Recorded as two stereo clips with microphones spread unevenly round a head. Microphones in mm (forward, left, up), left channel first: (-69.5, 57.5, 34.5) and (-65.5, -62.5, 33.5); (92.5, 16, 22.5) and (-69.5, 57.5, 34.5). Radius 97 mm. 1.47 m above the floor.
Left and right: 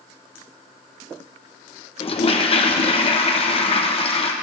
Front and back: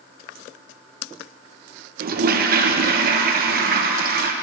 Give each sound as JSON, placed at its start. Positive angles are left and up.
{"t": 2.0, "sound": "a toilet flushing", "azimuth_deg": 130, "distance_m": 1.2}